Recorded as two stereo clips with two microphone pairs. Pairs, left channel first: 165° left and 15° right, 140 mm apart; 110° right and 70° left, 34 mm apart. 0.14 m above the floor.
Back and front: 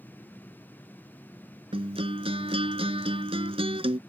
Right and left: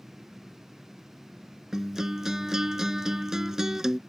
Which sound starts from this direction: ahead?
A guitar, at 1.7 s.